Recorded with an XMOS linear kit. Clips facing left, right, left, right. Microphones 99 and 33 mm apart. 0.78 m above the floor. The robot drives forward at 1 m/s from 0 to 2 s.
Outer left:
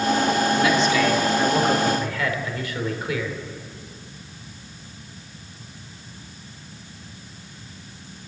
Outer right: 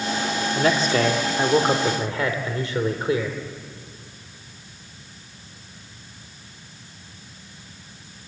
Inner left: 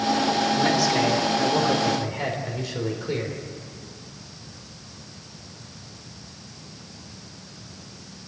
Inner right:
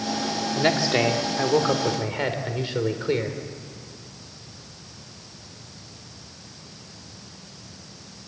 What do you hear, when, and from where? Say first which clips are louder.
0.6 s a man speaking: outer left 1 dB, inner left 1 dB; 45° right (ahead or behind), 2 m; by 3.4 s 30° right (ahead or behind), 3 m